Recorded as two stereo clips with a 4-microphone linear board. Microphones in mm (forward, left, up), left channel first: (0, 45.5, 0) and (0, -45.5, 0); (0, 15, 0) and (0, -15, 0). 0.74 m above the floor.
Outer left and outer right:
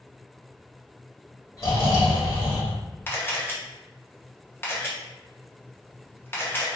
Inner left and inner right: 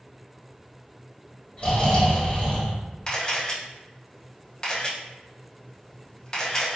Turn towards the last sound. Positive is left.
turn(degrees=25)  # may be behind; listen again after turning